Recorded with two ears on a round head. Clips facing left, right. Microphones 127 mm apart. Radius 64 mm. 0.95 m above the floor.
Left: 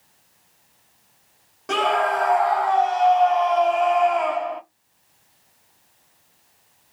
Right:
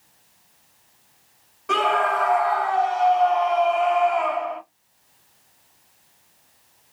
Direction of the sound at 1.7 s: 40° left (ahead or behind).